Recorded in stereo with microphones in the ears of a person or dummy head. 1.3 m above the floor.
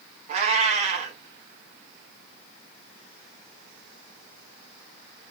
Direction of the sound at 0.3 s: 40° right (ahead or behind).